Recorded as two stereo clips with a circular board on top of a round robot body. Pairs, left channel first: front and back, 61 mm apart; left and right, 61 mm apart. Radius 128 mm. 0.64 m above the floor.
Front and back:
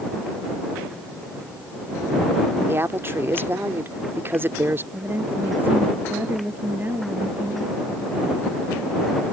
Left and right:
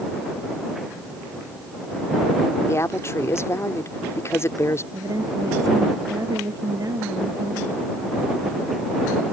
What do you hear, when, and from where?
2.7 s a woman speaking: 130° left
4.9 s a woman speaking: 120° right